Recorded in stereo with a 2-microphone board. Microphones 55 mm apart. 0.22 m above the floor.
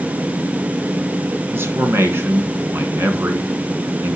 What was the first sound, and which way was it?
A man speaking, 45° right (ahead or behind).